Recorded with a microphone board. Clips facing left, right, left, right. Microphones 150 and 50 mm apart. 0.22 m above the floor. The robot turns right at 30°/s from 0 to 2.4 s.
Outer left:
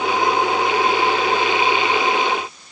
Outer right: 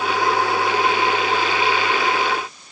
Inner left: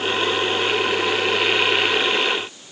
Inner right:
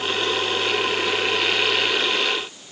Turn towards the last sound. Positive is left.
No sound to turn to.